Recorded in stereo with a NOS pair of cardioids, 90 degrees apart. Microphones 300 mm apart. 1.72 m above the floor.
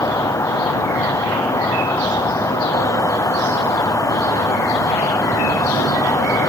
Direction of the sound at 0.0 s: 10° left.